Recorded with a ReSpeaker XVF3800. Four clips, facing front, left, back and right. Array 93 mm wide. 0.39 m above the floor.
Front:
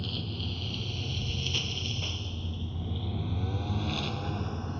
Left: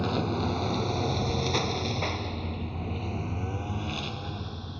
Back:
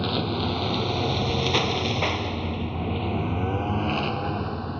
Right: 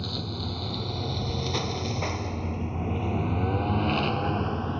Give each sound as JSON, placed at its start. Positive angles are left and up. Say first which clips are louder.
{"t": 0.0, "sound": "a lawn mower", "louder": "left 7 dB, back 12 dB", "azimuth_deg": 150}